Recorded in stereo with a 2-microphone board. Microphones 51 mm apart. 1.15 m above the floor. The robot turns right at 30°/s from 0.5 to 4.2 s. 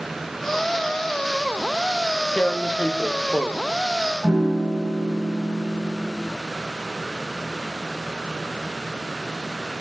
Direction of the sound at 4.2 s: 15° right (ahead or behind).